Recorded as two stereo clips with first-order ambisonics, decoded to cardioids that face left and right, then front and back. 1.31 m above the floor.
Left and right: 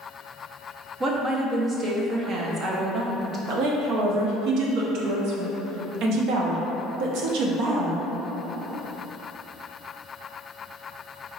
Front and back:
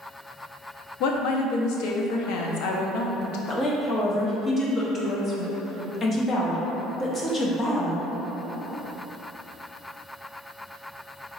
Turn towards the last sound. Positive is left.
turn(degrees=-65)